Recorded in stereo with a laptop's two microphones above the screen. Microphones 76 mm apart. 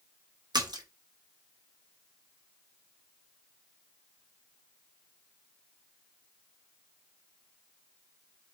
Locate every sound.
0.5 s a splash: 70° right (ahead or behind), 0.8 m